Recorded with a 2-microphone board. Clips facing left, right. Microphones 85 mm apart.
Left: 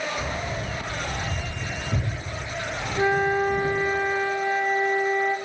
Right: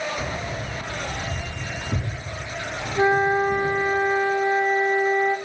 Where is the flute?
30° right (ahead or behind), 0.6 m.